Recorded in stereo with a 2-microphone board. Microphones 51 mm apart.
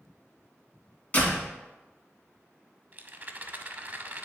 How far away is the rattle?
About 0.5 m.